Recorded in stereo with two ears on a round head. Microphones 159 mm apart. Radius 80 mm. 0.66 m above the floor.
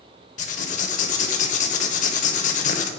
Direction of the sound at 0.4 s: 45° left (ahead or behind).